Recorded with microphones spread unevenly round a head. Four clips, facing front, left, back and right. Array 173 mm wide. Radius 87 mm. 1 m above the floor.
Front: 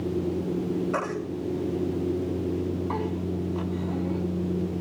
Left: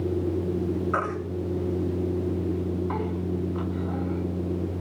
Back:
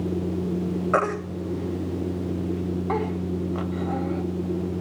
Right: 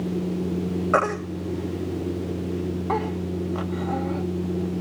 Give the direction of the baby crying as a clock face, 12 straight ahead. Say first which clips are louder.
Right 5 dB, back 5 dB; 4 o'clock.